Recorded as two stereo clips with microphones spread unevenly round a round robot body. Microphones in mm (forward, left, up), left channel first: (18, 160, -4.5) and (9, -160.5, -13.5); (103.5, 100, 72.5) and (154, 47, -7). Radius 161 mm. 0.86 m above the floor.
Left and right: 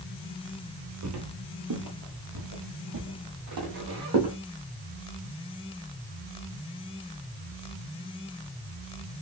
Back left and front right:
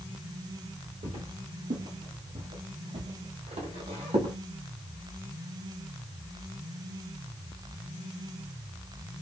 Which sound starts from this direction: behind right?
Footsteps, at 1.0 s.